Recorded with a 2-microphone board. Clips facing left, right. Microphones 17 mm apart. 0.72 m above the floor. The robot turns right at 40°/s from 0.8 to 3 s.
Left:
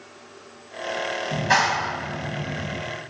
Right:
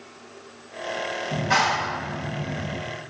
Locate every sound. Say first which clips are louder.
1.3 s a clap: left 1 dB; 115° left, 4 m; by 2.8 s 175° left, 4 m